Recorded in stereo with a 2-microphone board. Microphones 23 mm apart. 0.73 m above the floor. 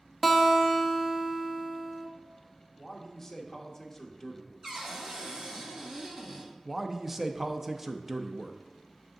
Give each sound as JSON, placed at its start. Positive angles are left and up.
{"t": 0.2, "sound": "a guitar", "side_deg": 5, "distance_m": 0.7}
{"t": 2.8, "sound": "a man speaking", "side_deg": 20, "distance_m": 1.0}
{"t": 4.6, "sound": "a cupboard door", "side_deg": -20, "distance_m": 1.6}
{"t": 6.7, "sound": "a man speaking", "side_deg": -10, "distance_m": 0.6}